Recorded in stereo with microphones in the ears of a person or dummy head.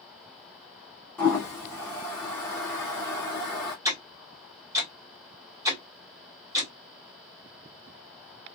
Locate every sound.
1.2 s a toilet flushing: 10° left (ahead or behind), 0.7 m
3.9 s ticking: 15° right (ahead or behind), 1.2 m